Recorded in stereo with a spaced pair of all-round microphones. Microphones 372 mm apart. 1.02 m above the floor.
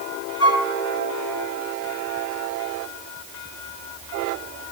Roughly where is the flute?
Left.